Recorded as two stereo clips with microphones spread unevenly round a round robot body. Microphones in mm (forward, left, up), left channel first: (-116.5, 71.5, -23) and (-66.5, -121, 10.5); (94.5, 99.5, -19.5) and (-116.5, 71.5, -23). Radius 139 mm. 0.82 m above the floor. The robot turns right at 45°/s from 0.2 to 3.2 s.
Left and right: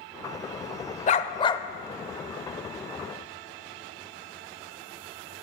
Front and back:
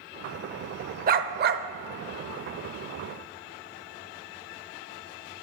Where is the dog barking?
155° left, 0.6 m; by 1.6 s straight behind, 0.6 m.